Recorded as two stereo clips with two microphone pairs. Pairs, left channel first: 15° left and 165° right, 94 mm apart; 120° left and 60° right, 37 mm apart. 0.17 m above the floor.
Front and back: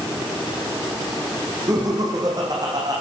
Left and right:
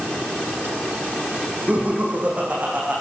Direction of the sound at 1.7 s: 110° right.